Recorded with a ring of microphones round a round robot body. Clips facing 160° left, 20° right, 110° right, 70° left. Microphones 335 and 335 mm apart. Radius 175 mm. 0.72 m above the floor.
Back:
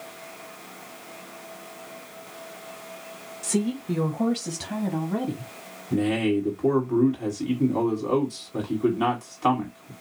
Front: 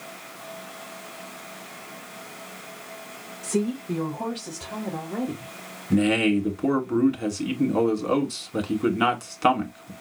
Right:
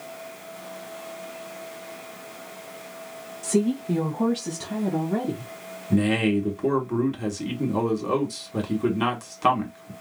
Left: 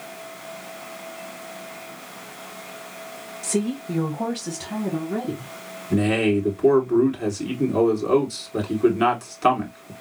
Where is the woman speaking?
175° left, 0.8 m; by 5.5 s straight behind, 2 m.